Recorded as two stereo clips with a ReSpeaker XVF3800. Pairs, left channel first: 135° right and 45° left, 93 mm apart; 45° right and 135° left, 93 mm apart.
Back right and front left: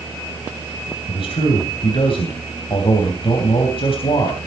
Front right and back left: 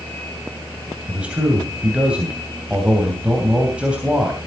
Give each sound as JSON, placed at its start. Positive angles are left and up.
{"t": 1.1, "sound": "a man speaking", "azimuth_deg": -150, "distance_m": 3.0}